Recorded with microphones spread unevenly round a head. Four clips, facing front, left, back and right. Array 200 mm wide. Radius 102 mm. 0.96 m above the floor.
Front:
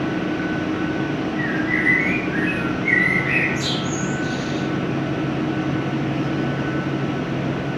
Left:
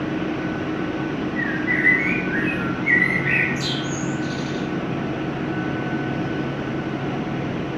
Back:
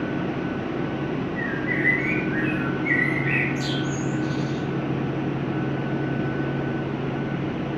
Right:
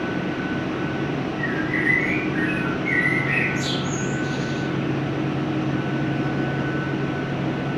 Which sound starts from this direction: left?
A bird, at 1.4 s.